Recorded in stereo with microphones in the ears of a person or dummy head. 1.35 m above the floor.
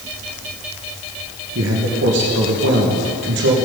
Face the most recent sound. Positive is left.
turn(degrees=-55)  # may be behind; listen again after turning